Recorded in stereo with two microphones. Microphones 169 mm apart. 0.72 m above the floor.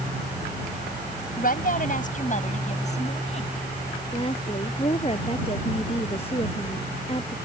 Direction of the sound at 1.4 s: 55° left (ahead or behind).